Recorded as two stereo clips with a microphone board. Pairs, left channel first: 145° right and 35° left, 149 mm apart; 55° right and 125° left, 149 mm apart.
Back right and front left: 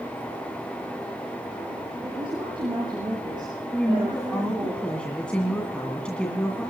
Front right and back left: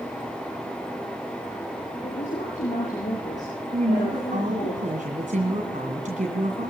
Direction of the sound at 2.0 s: 20° right.